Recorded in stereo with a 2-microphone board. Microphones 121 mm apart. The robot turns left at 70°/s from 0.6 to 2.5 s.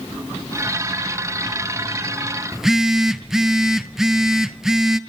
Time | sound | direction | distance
2.5 | a phone buzzing | 5° right (ahead or behind) | 0.6 m